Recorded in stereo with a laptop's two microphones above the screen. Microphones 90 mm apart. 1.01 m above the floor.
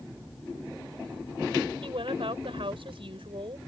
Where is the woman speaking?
85° right.